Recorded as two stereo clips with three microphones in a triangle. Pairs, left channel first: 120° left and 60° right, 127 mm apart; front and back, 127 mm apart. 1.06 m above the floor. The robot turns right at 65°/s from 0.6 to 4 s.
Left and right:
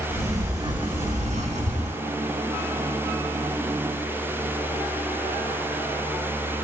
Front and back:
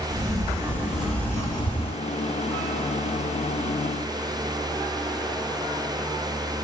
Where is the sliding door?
120° right, 1.9 m; by 2.0 s 25° right, 1.9 m.